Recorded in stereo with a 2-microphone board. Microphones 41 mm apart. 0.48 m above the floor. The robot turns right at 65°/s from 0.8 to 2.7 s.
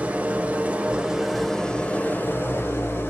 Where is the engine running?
40° right, 1.1 m; by 3.1 s 85° left, 1.1 m.